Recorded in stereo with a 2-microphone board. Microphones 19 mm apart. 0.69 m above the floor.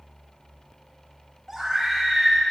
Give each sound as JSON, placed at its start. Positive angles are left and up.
{"t": 1.5, "sound": "a scream", "side_deg": -10, "distance_m": 4.5}